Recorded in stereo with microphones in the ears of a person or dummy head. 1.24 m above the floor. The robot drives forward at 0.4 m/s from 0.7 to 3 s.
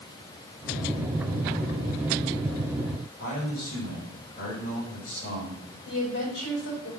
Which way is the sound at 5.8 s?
65° left (ahead or behind).